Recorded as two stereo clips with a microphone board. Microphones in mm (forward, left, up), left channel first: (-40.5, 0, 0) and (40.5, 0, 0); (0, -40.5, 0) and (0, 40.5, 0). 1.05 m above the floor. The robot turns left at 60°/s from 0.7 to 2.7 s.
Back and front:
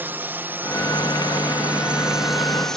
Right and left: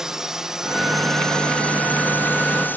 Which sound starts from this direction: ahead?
A drone, at 0.0 s.